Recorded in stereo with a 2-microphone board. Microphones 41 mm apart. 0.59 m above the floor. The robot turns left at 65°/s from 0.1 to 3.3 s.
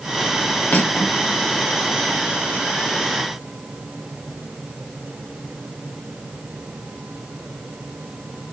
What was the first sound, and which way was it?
Cutlery clinking, 120° left.